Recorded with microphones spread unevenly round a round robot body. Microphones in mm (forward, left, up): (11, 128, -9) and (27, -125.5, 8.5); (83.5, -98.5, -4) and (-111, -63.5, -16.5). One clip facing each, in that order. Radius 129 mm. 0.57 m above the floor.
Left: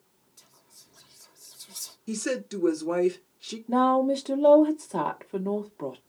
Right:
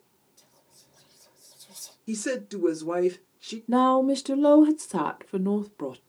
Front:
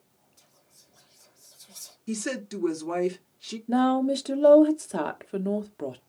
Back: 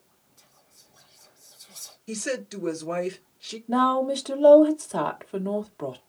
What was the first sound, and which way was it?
Whispering, 40° left.